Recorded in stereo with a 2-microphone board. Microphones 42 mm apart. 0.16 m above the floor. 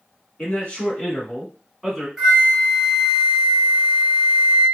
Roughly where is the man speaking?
Left.